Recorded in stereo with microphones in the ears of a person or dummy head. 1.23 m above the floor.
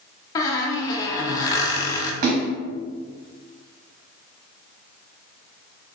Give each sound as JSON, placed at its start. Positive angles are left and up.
{"t": 0.3, "sound": "a squeak", "side_deg": 15, "distance_m": 0.6}
{"t": 2.2, "sound": "a splash", "side_deg": -50, "distance_m": 0.8}